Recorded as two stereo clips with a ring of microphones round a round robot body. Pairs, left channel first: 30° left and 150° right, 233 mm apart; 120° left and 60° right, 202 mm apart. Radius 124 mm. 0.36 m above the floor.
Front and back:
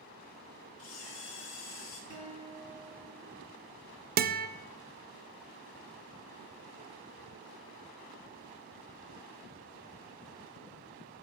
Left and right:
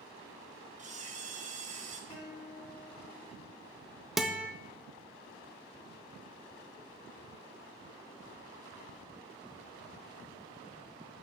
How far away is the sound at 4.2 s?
About 0.6 m.